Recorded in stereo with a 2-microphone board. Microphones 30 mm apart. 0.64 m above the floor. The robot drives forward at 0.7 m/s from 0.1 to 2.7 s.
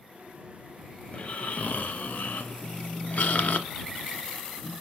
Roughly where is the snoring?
Left.